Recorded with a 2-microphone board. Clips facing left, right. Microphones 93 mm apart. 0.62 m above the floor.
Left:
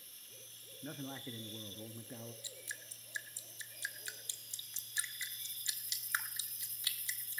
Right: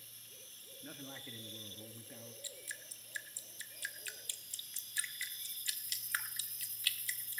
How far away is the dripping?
About 0.7 m.